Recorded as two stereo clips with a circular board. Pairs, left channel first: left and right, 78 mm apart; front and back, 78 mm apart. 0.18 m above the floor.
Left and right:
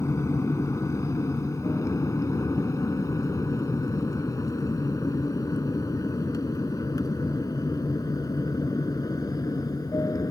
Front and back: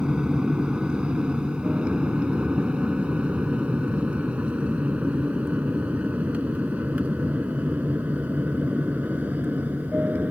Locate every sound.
0.0 s an aircraft: 105° left; by 10.3 s 115° left